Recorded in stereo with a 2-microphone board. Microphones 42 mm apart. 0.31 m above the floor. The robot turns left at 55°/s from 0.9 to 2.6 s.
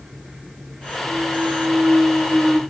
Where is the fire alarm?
No fire alarm in this recording.